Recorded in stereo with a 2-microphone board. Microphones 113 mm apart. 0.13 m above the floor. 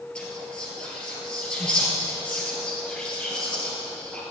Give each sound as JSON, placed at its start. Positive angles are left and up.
{"t": 0.1, "sound": "whispering", "side_deg": 5, "distance_m": 2.5}